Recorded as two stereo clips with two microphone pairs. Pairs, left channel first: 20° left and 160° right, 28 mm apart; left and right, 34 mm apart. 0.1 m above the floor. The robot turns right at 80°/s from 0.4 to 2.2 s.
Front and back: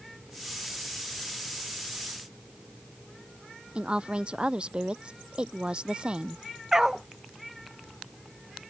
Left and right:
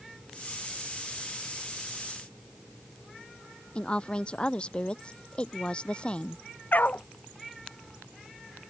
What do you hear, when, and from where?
3.8 s a woman speaking: 150° left
6.7 s a dog barking: 125° left